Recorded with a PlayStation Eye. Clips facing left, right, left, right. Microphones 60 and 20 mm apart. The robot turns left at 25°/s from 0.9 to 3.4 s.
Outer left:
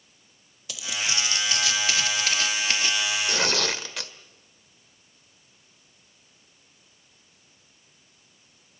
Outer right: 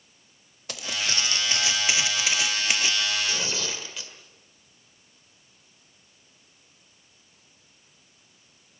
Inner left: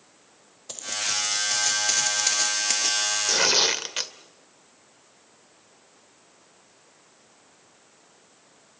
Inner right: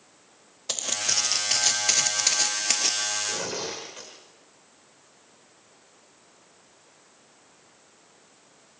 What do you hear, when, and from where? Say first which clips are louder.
0.7 s footsteps: even, inner right 2 dB; 45° right (ahead or behind), 0.9 m; by 3.1 s 15° right (ahead or behind), 0.8 m
3.3 s tearing paper: outer left 5 dB, inner left 10 dB; 65° left (ahead or behind), 1.5 m